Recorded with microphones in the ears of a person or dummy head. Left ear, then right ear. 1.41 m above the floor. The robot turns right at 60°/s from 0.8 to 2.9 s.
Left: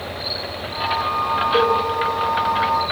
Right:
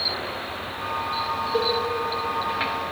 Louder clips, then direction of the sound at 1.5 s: Left 6 dB; 30° left (ahead or behind).